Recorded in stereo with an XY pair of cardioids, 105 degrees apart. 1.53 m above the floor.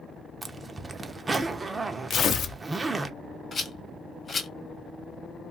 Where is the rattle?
35° left, 0.9 m.